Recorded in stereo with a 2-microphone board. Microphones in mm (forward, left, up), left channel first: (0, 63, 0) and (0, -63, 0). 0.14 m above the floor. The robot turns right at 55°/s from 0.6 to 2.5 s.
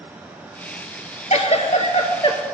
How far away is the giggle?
About 0.9 m.